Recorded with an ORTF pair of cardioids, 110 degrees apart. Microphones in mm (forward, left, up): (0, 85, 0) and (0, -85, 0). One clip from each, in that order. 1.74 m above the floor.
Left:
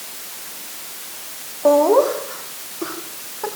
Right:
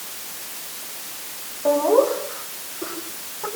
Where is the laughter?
40° left, 5 m; by 3.5 s 30° left, 7 m.